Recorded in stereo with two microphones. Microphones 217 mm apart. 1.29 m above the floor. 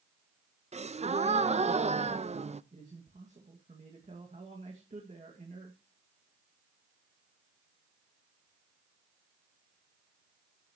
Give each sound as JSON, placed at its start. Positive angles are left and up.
{"t": 0.7, "sound": "a gasp", "side_deg": -30, "distance_m": 0.5}
{"t": 2.7, "sound": "a man speaking", "side_deg": -35, "distance_m": 2.0}